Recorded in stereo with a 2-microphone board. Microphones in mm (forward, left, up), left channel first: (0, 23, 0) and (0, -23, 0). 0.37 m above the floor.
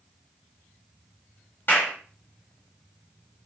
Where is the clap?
50° left (ahead or behind), 2 m.